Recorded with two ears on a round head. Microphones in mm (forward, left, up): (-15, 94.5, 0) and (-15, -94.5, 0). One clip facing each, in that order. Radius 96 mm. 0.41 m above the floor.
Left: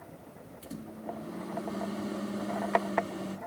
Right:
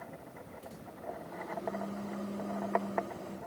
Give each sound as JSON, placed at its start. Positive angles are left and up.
{"t": 0.6, "sound": "a microwave", "side_deg": 80, "distance_m": 4.0}